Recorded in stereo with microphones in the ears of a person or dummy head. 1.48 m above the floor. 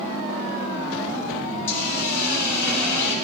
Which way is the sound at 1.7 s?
15° left (ahead or behind).